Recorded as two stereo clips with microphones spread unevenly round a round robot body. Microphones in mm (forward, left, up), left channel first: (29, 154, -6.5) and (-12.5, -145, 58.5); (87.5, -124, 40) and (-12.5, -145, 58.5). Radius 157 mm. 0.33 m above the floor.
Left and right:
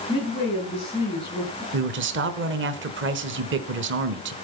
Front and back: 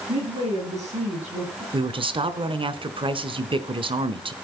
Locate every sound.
0.1 s a woman speaking: 155° left, 6.5 m
1.7 s a man speaking: 150° right, 1.2 m